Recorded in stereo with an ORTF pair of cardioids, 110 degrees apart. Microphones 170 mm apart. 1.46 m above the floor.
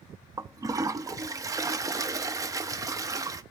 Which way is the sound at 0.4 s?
20° right.